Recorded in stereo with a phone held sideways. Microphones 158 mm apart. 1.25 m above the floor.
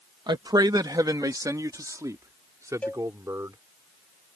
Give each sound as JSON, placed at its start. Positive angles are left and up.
{"t": 0.3, "sound": "a man speaking", "side_deg": -25}
{"t": 2.8, "sound": "a cowbell", "side_deg": 10}